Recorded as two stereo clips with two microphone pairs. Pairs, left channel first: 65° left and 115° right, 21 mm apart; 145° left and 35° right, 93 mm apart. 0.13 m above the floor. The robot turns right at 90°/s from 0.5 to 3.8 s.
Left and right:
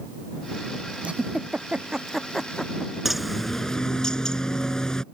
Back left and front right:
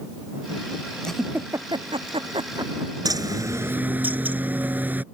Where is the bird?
40° right; by 5.0 s 25° left.